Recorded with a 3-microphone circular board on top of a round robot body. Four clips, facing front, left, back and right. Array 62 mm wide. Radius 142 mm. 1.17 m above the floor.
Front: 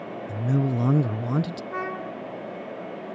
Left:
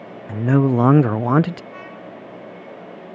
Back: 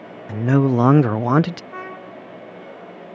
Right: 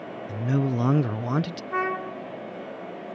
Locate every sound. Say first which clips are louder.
0.3 s a man speaking: left 9 dB, back 9 dB; 135° left
1.7 s a trumpet: right 8 dB, front 3 dB; 80° right